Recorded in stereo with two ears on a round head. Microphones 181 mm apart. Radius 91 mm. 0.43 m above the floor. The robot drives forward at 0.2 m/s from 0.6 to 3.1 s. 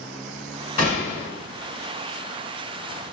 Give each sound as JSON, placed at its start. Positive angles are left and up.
{"t": 0.8, "sound": "a gunshot", "side_deg": 35, "distance_m": 1.9}